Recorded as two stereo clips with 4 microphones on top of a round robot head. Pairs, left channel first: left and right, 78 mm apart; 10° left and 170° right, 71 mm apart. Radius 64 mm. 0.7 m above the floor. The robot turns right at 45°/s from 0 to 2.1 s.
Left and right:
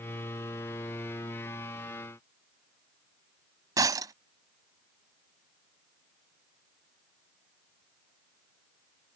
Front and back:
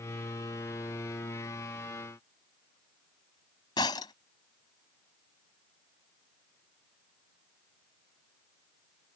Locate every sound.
3.8 s breaking glass: 45° right